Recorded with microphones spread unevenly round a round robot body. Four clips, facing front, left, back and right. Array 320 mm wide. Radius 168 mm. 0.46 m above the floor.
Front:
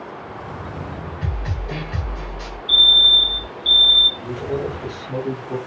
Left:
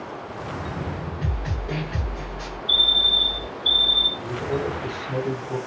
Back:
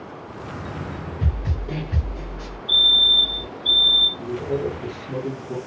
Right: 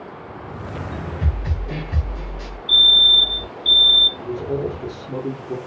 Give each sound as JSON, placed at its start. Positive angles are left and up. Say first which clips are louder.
{"t": 1.2, "sound": "a snare drum", "louder": "right 1 dB, even", "azimuth_deg": -150, "distance_m": 1.1}
{"t": 2.7, "sound": "a fire alarm", "louder": "right 6 dB, front 3 dB", "azimuth_deg": -140, "distance_m": 1.8}
{"t": 4.2, "sound": "a man speaking", "louder": "right 2 dB, back 1 dB", "azimuth_deg": -120, "distance_m": 1.0}